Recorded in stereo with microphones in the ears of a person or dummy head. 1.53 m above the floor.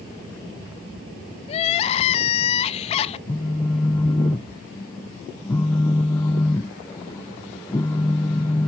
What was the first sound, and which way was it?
Crying, 35° left (ahead or behind).